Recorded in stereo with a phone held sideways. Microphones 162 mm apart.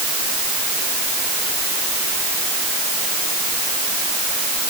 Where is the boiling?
I don't hear boiling.